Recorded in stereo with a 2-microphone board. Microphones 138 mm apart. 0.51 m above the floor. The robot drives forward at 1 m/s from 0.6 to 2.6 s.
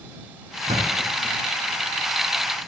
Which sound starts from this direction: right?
A thud, at 0.7 s.